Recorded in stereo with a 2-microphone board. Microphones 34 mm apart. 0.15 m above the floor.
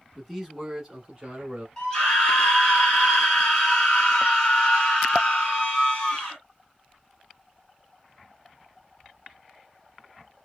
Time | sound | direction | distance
0.1 | a man speaking | 10° left (ahead or behind) | 1.0 m
1.8 | a scream | 25° left (ahead or behind) | 2.0 m